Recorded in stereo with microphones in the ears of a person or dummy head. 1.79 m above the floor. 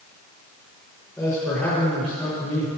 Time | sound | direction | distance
1.2 | a man speaking | 5° left (ahead or behind) | 6.5 m